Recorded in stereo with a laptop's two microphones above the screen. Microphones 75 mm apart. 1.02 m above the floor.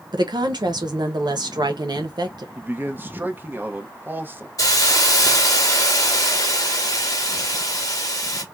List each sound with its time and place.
0.1 s a woman speaking: 70° right (ahead or behind), 0.8 m
2.5 s a man speaking: 25° right (ahead or behind), 0.8 m
4.6 s a hiss: 50° left (ahead or behind), 1.1 m